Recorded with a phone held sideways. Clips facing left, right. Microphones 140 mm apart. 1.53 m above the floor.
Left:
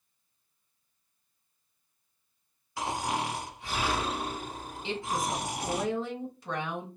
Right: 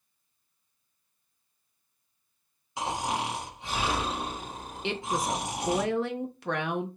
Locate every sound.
2.8 s snoring: 20° right (ahead or behind), 1.5 m
4.8 s a woman speaking: 70° right (ahead or behind), 0.9 m